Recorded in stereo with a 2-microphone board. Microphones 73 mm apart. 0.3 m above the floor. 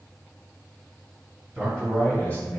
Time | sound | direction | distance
1.6 | a man speaking | 10° left (ahead or behind) | 1.8 m